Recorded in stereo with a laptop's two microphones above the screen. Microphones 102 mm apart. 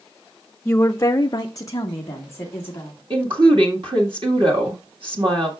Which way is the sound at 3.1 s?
55° right (ahead or behind).